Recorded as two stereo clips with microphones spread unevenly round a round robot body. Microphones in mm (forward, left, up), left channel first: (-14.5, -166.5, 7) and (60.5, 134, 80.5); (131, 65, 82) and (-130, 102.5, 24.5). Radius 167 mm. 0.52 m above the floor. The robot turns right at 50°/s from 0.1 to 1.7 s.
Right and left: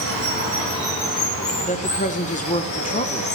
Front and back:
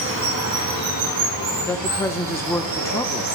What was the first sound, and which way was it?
Running water, 125° left.